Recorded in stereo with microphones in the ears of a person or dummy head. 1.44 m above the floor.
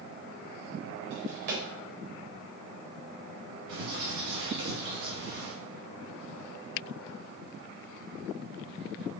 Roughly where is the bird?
Right.